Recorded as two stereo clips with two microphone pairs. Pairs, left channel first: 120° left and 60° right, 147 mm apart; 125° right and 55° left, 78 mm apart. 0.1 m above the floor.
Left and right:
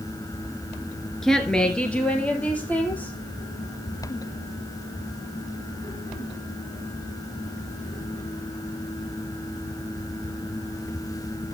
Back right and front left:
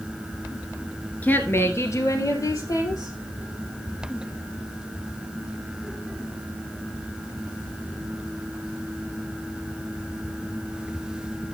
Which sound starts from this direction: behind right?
A woman speaking, at 1.2 s.